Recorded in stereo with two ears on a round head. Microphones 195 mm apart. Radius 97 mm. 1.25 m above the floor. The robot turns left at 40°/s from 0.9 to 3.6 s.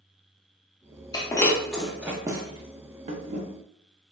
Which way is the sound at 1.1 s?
20° left (ahead or behind).